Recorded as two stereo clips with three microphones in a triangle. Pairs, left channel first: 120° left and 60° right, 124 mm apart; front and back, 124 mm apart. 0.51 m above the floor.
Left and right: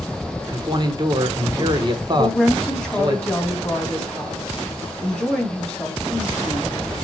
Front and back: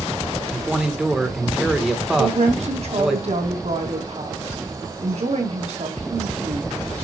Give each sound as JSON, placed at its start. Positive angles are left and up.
{"t": 0.5, "sound": "a man speaking", "azimuth_deg": -95, "distance_m": 1.4}
{"t": 2.2, "sound": "a woman speaking", "azimuth_deg": -155, "distance_m": 3.0}